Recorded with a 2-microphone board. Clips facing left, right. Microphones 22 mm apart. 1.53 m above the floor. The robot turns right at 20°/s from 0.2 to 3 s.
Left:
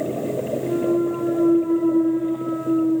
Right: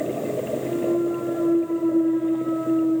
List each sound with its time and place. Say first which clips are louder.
0.6 s a clunk: left 3 dB; 140° left, 0.9 m; by 3.0 s 175° right, 0.9 m